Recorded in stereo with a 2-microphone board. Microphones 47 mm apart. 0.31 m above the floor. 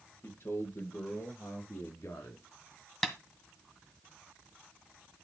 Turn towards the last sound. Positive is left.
turn(degrees=5)  # may be behind; listen again after turning